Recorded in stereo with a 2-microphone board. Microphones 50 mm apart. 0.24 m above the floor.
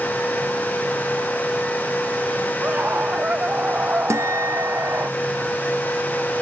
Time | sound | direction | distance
2.6 | a scream | 35° right (ahead or behind) | ?
4.1 | a guitar | 85° right | ?